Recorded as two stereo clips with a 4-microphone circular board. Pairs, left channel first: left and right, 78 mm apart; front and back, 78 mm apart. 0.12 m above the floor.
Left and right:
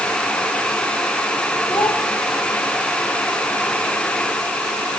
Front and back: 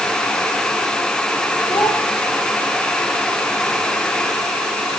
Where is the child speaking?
40° left, 7.5 m.